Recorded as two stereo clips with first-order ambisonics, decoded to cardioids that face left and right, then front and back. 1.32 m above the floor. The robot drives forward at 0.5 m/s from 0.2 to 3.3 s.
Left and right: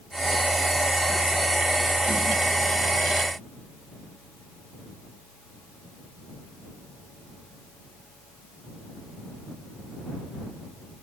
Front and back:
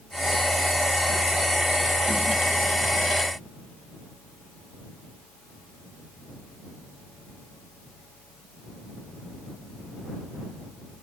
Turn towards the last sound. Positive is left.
No sound to turn to.